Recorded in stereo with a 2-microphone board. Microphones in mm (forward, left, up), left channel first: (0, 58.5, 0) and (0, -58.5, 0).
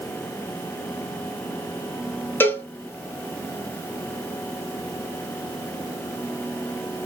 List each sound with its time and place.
2.4 s a cowbell: 15° left (ahead or behind), 0.7 m